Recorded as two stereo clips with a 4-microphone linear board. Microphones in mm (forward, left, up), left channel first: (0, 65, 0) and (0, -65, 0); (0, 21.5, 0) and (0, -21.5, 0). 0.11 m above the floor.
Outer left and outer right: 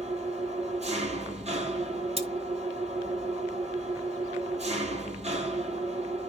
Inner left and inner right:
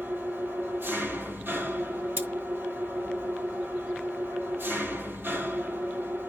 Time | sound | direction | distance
0.0 | an engine running | 55° right (ahead or behind) | 1.2 m
2.2 | cutlery clinking | 45° right (ahead or behind) | 2.0 m